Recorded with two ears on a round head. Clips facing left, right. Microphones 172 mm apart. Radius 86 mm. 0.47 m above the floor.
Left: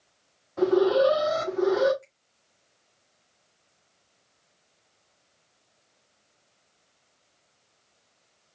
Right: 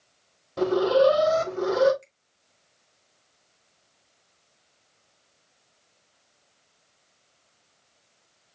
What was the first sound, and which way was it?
An alarm, 50° right (ahead or behind).